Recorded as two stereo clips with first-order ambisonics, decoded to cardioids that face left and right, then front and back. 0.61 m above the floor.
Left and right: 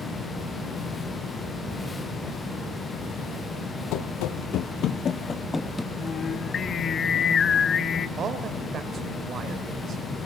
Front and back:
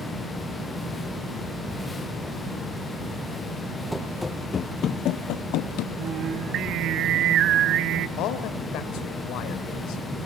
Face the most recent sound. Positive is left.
turn(degrees=-30)